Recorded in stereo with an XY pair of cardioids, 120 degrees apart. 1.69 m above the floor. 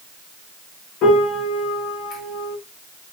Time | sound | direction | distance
1.0 | a piano | 65° left | 0.9 m